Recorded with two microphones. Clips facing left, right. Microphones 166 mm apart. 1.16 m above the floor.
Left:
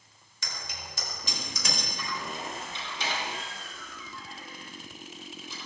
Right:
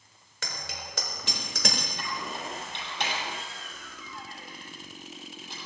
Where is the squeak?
75° right (ahead or behind), 8 m.